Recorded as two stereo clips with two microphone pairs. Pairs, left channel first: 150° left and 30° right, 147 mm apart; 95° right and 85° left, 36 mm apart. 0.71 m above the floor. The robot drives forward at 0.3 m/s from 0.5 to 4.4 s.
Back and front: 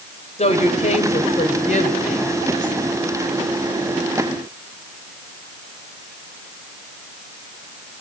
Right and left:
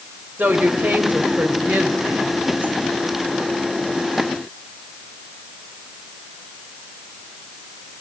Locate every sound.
0.4 s a woman speaking: 110° left, 3 m; by 2.7 s 120° left, 3.5 m